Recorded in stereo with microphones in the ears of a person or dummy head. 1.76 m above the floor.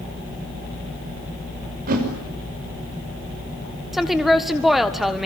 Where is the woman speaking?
Centre (ahead or behind), 1.5 m.